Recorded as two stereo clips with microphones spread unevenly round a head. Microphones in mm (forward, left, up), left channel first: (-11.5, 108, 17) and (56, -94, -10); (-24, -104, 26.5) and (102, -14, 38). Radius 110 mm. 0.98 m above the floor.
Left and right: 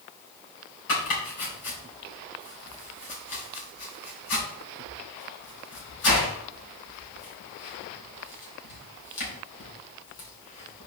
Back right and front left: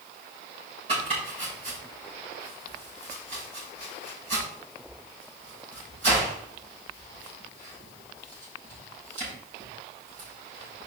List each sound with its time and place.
0.9 s chopping: 100° left, 4.5 m